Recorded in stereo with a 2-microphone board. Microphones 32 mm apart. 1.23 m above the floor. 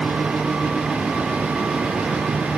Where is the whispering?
I don't hear whispering.